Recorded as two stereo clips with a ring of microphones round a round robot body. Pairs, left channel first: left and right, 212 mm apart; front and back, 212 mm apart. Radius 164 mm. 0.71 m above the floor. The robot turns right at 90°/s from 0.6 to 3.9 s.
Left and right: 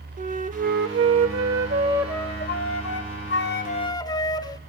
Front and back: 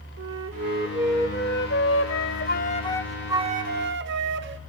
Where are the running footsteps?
No running footsteps in this recording.